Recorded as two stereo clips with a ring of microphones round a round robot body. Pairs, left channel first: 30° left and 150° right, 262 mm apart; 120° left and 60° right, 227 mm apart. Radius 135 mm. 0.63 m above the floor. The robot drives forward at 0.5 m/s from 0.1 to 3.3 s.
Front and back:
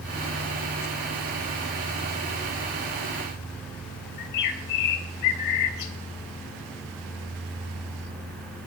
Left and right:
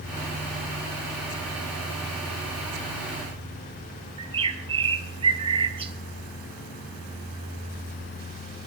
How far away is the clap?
I don't hear a clap.